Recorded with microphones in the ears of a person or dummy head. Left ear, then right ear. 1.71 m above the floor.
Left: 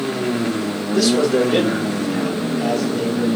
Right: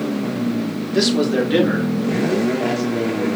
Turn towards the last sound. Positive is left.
turn(degrees=-30)  # may be behind; listen again after turning